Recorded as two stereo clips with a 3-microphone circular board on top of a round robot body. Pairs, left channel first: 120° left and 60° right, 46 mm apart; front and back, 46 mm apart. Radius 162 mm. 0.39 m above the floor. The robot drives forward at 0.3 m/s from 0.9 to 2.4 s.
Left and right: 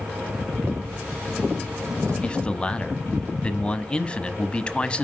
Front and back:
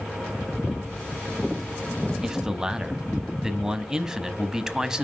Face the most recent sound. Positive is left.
turn(degrees=130)